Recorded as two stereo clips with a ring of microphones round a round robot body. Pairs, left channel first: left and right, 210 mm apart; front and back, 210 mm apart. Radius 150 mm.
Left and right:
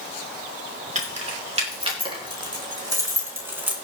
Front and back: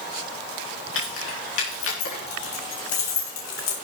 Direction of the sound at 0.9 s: 35° right.